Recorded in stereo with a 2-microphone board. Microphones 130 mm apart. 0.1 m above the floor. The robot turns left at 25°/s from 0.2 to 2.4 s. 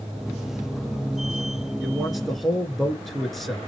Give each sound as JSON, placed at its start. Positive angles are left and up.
{"t": 1.8, "sound": "a man speaking", "side_deg": -5, "distance_m": 1.6}